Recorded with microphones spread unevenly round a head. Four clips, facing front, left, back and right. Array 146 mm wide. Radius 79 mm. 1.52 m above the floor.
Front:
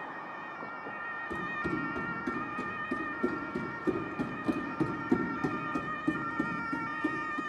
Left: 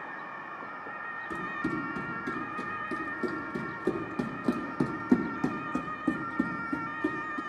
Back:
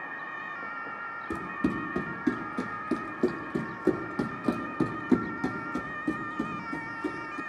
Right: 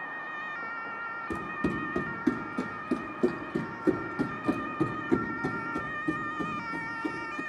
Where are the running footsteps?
135° right, 3.5 m; by 7.4 s 95° left, 4.5 m.